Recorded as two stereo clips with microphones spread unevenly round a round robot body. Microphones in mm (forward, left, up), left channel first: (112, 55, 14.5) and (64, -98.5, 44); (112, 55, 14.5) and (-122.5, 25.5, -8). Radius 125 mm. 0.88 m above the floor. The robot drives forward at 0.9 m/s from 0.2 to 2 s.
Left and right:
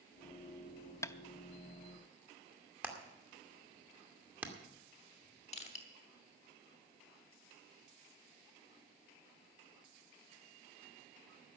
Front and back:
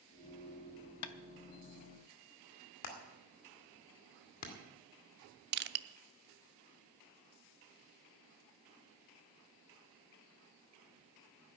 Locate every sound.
1.0 s tapping: 5° right, 0.7 m
2.8 s hammering: 25° right, 2.5 m
5.5 s crushing: 140° left, 0.6 m